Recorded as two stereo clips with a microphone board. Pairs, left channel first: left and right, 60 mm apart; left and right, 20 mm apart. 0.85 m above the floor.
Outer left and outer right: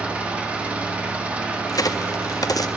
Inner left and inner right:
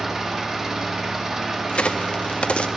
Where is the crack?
75° left (ahead or behind), 0.5 m.